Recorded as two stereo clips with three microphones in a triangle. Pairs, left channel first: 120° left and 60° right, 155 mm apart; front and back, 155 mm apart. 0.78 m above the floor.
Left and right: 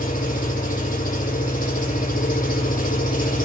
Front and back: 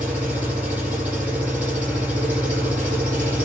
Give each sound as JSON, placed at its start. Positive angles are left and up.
{"t": 0.0, "sound": "an engine running", "azimuth_deg": 100, "distance_m": 8.0}